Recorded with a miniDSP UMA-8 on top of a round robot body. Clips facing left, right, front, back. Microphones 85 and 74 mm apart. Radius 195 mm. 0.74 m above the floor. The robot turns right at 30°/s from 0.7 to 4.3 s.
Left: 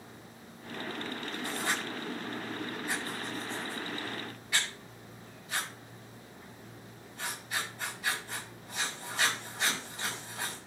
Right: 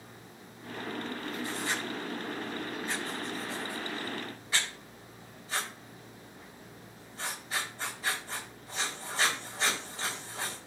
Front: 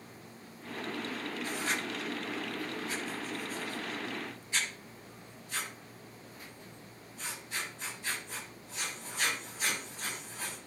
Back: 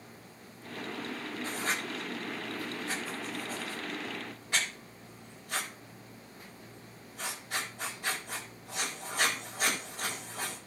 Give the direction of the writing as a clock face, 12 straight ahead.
8 o'clock.